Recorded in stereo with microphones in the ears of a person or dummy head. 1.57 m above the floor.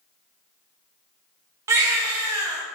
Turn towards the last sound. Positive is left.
turn(degrees=-15)  # may be behind; listen again after turning